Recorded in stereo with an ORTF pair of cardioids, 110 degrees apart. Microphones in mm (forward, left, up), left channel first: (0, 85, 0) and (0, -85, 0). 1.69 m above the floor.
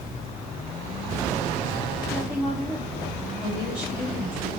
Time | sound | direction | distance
2.1 | a woman speaking | 10° right | 3 m